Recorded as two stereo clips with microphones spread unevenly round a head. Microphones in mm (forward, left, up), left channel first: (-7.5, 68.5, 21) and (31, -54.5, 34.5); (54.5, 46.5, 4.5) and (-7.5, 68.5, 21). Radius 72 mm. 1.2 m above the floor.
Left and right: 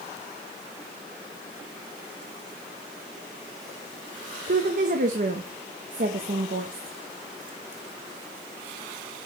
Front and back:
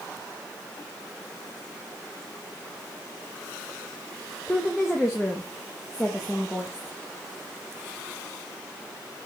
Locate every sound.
4.5 s a woman speaking: 110° right, 1.0 m